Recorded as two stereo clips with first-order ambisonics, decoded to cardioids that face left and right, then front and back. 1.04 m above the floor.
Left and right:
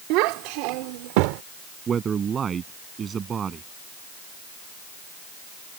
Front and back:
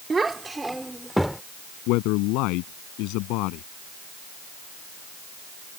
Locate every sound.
0.1 s a child speaking: 105° right; by 1.4 s 90° right
1.9 s a man speaking: 25° right